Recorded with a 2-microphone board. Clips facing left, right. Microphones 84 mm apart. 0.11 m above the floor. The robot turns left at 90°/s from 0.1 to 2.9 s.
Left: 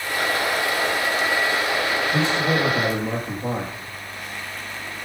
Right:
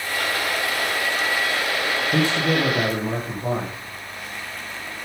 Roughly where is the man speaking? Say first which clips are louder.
Right 2 dB; right.